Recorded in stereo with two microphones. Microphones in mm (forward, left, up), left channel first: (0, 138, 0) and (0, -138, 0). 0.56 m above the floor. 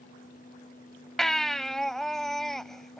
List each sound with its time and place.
1.2 s a baby crying: centre (ahead or behind)